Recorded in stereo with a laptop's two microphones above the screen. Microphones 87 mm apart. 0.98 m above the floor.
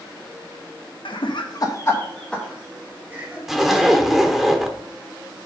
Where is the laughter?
75° left (ahead or behind), 1.1 m; by 3.4 s 15° right (ahead or behind), 2.0 m.